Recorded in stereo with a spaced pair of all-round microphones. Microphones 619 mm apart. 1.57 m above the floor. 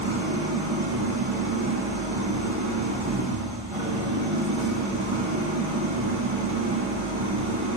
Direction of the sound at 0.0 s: 50° right (ahead or behind).